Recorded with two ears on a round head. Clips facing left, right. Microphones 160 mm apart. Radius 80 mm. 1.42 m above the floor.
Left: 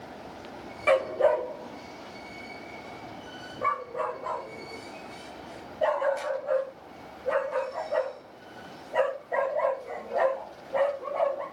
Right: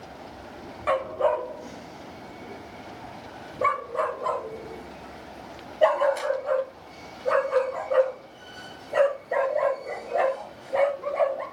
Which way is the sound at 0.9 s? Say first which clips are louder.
Left 2 dB; 30° left (ahead or behind).